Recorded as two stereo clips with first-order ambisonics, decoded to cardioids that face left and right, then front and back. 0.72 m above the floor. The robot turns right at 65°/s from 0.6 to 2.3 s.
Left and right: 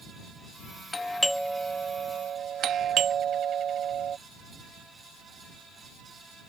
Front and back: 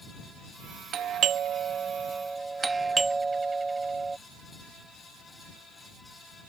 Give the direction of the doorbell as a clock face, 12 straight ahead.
7 o'clock.